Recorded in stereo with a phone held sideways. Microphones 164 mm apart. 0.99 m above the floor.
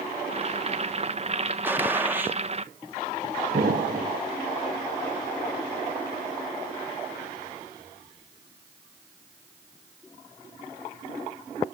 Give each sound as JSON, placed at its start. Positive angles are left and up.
{"t": 0.3, "sound": "boiling", "side_deg": -40, "distance_m": 0.8}
{"t": 1.6, "sound": "a gunshot", "side_deg": -10, "distance_m": 0.6}
{"t": 3.5, "sound": "an explosion", "side_deg": -60, "distance_m": 1.0}